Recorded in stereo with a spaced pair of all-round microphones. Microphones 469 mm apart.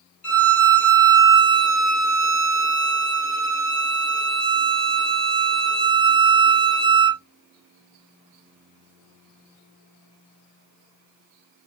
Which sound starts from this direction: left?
A violin, at 0.2 s.